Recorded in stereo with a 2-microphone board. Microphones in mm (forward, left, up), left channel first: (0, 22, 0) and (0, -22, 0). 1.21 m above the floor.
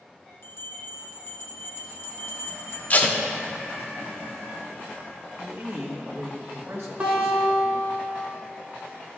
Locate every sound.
0.4 s a bell: 70° left (ahead or behind), 0.8 m
2.9 s tape being pulled: 40° left (ahead or behind), 0.8 m
5.4 s a man speaking: 65° right (ahead or behind), 1.4 m
7.0 s a guitar: 30° right (ahead or behind), 2 m